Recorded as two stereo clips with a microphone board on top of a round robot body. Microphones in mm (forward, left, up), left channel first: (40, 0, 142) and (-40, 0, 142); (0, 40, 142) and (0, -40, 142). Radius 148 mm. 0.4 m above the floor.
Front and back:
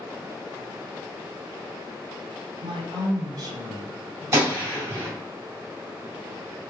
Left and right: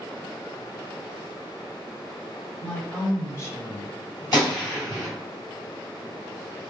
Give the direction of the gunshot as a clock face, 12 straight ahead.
8 o'clock.